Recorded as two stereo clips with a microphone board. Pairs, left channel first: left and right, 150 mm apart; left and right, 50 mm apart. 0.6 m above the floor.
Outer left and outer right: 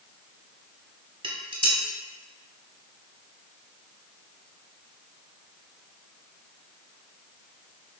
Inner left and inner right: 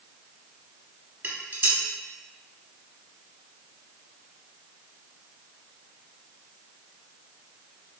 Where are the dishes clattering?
35° right (ahead or behind), 0.9 m.